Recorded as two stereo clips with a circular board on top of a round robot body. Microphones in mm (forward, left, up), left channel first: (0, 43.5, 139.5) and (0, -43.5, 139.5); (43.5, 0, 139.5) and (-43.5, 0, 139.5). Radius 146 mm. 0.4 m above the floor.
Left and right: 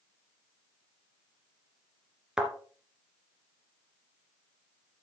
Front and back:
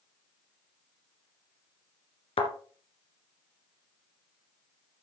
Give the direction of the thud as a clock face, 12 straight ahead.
12 o'clock.